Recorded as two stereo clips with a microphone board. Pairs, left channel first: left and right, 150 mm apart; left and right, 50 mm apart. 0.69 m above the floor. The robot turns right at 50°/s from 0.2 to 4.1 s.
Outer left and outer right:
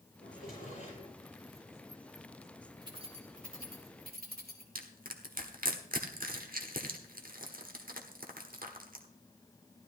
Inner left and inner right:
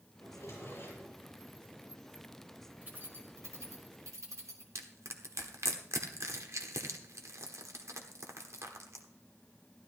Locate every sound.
0.2 s a drawer: 95° left, 7.5 m; by 1.1 s 140° left, 7.5 m
2.8 s keys jangling: 25° right (ahead or behind), 2.0 m; by 4.7 s 85° right, 2.0 m
4.8 s crushing: 70° right (ahead or behind), 1.2 m